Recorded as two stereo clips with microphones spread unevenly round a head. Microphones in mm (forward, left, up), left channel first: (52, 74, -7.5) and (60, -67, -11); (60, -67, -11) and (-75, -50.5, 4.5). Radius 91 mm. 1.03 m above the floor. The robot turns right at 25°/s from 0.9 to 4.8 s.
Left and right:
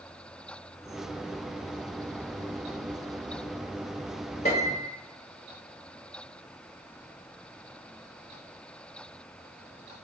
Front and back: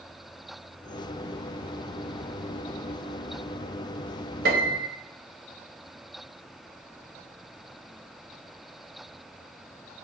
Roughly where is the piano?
Behind left.